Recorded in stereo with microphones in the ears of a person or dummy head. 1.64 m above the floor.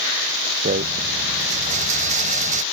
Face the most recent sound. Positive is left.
turn(degrees=-40)  # may be behind; listen again after turning